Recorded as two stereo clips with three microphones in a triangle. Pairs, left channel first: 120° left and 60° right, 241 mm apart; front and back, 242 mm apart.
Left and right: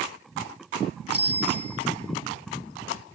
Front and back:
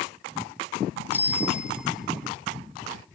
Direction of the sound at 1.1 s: 100° left.